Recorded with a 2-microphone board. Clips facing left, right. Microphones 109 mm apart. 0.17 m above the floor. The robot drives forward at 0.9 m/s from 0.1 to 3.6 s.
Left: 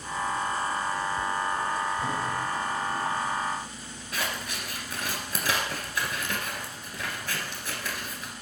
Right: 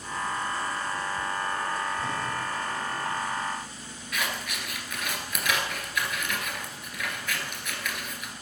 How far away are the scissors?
About 1.6 m.